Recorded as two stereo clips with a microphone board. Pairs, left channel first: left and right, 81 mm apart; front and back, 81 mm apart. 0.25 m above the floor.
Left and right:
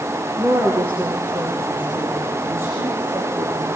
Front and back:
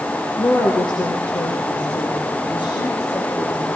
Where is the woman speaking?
20° right, 4.5 m; by 3.8 s 25° right, 8 m.